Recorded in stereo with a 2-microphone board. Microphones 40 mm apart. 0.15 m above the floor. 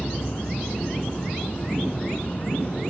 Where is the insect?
40° left (ahead or behind).